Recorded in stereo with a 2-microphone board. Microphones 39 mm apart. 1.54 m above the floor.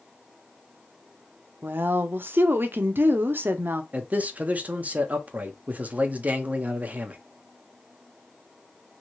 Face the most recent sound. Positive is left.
turn(degrees=-40)  # may be behind; listen again after turning